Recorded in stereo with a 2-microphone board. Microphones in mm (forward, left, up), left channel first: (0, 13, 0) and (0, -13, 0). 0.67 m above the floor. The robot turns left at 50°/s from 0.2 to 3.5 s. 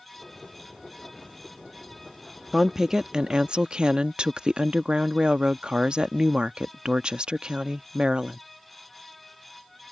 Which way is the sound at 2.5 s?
15° right.